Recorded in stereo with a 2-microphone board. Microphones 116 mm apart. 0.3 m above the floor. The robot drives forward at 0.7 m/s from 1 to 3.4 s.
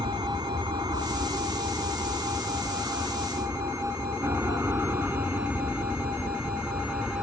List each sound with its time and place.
0.0 s an aircraft: 40° right (ahead or behind); by 7.2 s 10° right (ahead or behind)